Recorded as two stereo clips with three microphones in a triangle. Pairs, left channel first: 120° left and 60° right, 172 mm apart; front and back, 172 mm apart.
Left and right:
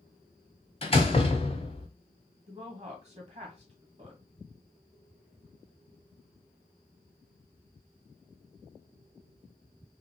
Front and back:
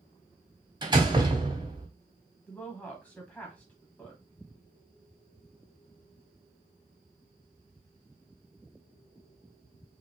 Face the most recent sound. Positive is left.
turn(degrees=-80)